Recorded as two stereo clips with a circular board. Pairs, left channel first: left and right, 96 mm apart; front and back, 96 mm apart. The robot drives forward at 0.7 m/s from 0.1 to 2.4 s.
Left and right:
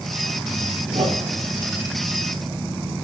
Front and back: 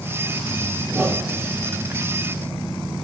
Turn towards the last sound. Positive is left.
turn(degrees=-110)